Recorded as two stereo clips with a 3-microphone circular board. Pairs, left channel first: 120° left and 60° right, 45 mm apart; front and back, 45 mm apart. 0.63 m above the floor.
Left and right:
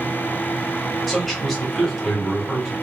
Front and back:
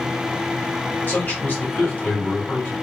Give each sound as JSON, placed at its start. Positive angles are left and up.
{"t": 1.1, "sound": "a man speaking", "azimuth_deg": 35, "distance_m": 2.0}